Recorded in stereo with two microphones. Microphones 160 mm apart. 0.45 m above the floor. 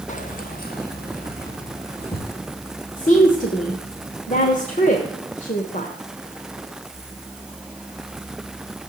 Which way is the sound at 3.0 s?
55° left (ahead or behind).